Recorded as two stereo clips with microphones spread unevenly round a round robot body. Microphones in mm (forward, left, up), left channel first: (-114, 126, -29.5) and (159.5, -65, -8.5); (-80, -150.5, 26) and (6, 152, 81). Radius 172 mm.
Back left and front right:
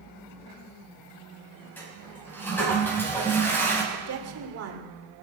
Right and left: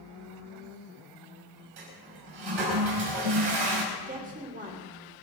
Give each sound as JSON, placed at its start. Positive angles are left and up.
{"t": 1.8, "sound": "a toilet flushing", "azimuth_deg": 60, "distance_m": 5.0}
{"t": 3.9, "sound": "a woman speaking", "azimuth_deg": 10, "distance_m": 3.0}